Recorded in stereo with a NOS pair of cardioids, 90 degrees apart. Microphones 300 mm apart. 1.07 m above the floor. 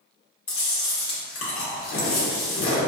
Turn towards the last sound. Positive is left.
turn(degrees=50)